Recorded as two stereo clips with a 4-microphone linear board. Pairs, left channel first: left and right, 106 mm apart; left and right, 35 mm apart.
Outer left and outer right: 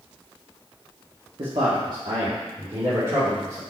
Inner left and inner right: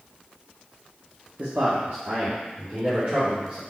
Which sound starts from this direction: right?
A man speaking, at 1.4 s.